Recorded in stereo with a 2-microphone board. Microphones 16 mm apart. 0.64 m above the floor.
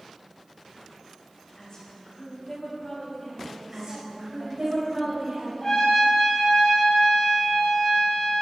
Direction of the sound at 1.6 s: 45° left (ahead or behind).